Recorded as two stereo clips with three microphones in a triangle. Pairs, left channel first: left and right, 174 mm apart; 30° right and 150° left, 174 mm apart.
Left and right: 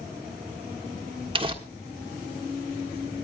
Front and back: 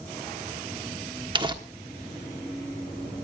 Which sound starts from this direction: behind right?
Crumpling, at 1.4 s.